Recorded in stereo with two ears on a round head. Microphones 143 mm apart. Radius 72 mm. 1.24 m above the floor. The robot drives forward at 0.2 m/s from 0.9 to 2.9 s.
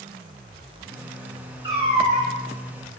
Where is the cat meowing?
30° right (ahead or behind), 1.3 m; by 2.3 s 25° right (ahead or behind), 1.4 m.